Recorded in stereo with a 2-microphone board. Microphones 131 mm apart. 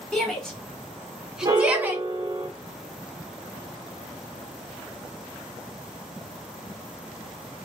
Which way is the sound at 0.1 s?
5° left (ahead or behind).